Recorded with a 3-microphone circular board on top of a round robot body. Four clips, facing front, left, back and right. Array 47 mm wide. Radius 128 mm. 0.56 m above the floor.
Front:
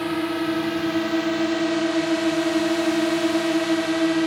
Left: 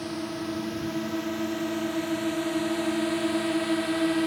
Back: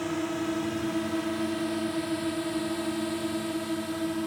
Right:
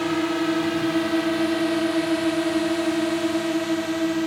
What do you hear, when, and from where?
0.0 s a drone: 55° right; by 4.3 s 5° left